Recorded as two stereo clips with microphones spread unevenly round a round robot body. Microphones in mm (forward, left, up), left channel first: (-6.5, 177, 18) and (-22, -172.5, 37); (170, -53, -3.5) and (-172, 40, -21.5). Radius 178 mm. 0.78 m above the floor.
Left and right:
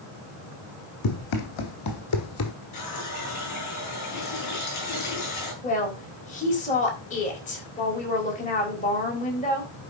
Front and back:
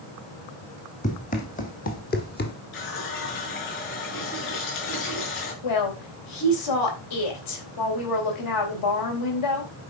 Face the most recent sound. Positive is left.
turn(degrees=20)